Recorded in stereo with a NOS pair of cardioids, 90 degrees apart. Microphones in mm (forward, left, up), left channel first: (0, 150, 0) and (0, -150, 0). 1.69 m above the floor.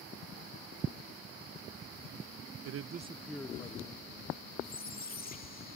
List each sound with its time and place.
2.6 s a man speaking: 60° right; by 4.5 s 35° left
4.6 s a squeak: 30° left